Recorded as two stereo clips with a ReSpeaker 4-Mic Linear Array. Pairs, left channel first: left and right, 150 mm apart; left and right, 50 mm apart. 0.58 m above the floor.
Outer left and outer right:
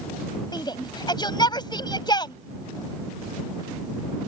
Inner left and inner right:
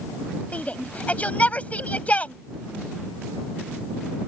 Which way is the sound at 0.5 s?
30° left (ahead or behind).